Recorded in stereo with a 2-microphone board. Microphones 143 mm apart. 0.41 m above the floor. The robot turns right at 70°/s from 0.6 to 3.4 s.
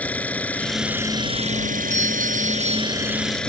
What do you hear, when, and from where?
0.0 s an engine running: 170° left; by 3.5 s 5° left
1.9 s a doorbell: 115° right; by 3.4 s 10° right